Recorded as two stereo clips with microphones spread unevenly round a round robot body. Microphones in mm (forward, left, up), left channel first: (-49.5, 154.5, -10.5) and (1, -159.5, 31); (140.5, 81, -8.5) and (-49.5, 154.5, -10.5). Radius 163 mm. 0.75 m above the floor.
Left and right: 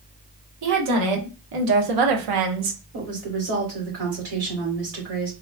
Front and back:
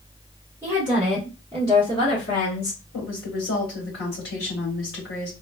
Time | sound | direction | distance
0.6 | a woman speaking | 120° right | 1.5 m
2.9 | a woman speaking | 30° right | 2.5 m